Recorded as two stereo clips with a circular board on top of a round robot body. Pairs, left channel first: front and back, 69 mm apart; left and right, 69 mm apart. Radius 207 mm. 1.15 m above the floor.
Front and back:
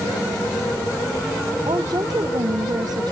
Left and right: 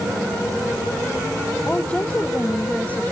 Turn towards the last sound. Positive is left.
turn(degrees=160)